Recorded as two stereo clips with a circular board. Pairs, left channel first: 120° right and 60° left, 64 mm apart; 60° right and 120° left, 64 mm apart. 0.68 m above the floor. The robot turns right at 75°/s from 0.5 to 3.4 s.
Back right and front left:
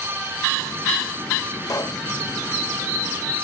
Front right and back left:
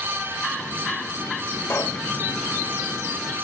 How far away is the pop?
About 0.9 m.